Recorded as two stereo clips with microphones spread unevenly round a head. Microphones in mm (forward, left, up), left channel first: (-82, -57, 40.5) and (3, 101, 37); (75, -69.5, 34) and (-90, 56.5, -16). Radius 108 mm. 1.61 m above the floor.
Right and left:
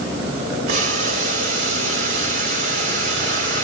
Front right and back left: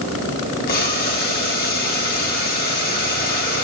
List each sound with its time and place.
0.7 s boiling: 5° left, 4 m